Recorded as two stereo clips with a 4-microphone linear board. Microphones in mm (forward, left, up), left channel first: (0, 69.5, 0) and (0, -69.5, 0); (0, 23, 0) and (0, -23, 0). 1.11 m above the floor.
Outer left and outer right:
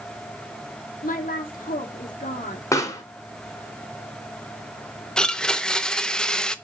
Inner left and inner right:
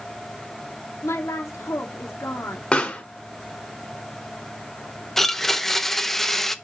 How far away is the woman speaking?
About 2.5 m.